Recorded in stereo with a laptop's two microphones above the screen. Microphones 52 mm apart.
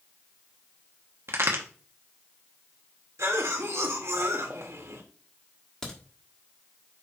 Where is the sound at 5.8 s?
10° left (ahead or behind), 1.5 m.